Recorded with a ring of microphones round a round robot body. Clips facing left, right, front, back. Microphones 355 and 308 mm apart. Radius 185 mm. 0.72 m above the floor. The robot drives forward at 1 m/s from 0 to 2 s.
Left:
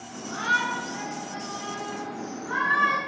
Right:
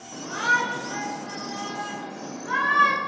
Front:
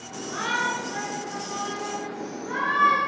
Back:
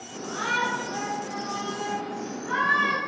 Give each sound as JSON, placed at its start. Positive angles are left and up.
{"t": 0.1, "sound": "a shout", "azimuth_deg": -70, "distance_m": 3.0}